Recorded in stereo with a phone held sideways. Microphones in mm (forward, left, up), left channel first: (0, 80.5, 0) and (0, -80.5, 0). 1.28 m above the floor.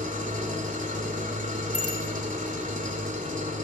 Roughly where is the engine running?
Right.